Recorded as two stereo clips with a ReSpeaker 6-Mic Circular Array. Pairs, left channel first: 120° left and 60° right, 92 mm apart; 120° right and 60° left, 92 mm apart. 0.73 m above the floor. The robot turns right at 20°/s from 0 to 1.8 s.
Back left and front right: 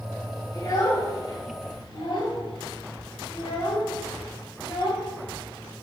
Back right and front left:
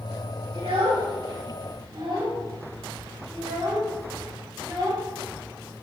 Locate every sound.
0.5 s a child speaking: 70° left, 3 m; by 5.8 s 95° left, 3 m